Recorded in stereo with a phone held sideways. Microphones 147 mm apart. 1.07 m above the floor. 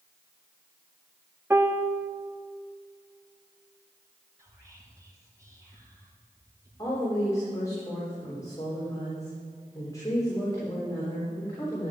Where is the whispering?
20° right (ahead or behind), 4 m.